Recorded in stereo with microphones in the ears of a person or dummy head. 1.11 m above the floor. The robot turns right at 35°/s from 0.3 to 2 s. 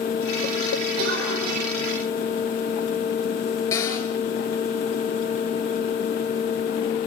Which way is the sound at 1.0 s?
70° right (ahead or behind).